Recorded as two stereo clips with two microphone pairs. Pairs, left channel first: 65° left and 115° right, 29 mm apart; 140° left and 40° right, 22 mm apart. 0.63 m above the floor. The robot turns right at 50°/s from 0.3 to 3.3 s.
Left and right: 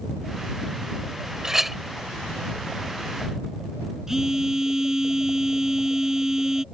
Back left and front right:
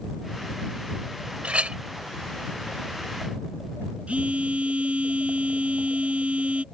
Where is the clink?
45° right; by 1.8 s 30° right.